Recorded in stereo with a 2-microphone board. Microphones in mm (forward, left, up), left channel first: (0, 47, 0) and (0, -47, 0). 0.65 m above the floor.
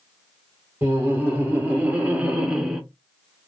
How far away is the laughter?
About 1.6 m.